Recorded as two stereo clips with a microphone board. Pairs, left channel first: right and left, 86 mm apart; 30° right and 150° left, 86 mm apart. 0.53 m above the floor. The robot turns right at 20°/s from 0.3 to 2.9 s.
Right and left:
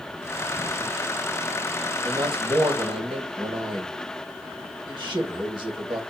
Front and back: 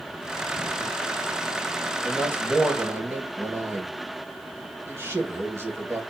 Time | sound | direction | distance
2.0 | a man speaking | 75° left | 1.9 m